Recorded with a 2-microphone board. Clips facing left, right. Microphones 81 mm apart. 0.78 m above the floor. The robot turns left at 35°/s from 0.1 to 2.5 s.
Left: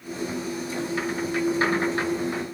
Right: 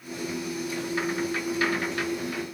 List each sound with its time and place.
Only background noise.